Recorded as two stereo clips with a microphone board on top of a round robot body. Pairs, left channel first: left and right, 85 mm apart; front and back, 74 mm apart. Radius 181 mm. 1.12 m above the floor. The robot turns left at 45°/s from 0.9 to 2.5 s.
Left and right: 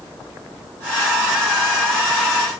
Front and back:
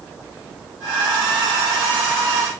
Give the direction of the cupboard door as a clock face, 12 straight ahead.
No cupboard door in this recording.